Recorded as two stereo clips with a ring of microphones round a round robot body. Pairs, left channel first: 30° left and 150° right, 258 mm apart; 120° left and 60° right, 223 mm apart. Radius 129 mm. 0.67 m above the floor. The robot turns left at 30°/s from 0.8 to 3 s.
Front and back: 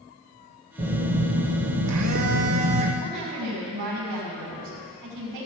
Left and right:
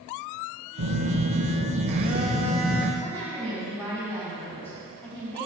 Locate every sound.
0.8 s a phone buzzing: 80° right, 1.1 m; by 2.9 s 145° right, 1.1 m
3.0 s a woman speaking: 155° right, 5.5 m